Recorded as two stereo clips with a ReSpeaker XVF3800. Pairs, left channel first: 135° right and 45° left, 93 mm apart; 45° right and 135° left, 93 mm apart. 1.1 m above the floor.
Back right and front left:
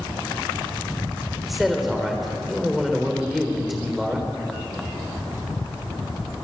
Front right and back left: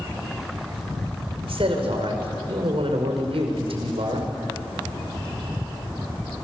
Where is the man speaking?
135° left, 4.5 m.